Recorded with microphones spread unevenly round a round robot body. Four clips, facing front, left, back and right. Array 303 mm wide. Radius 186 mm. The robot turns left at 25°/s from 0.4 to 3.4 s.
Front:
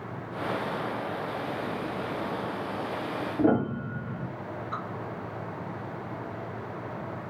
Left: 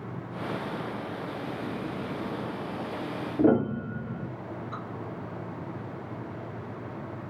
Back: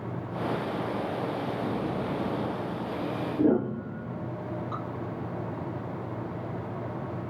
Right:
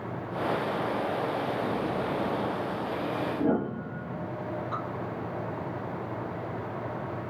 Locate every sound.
3.4 s a piano: 35° left, 0.7 m
4.7 s dripping: 165° left, 0.8 m